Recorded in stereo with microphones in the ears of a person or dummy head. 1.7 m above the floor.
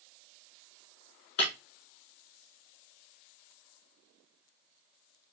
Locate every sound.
1.4 s breaking glass: 40° left (ahead or behind), 1.2 m